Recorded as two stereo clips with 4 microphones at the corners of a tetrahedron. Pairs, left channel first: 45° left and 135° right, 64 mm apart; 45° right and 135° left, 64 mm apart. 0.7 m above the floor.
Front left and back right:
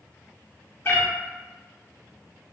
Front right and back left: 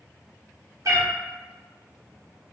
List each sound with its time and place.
0.8 s a cat meowing: 100° left, 0.7 m